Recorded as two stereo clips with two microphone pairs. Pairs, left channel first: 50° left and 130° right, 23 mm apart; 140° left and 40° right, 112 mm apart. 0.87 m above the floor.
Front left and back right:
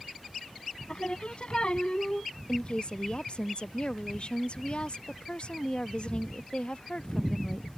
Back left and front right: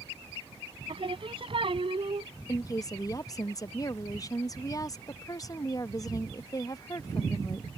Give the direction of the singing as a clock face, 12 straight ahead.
12 o'clock.